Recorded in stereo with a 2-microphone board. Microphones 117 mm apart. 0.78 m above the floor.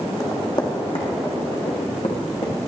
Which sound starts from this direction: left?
Running footsteps, at 0.2 s.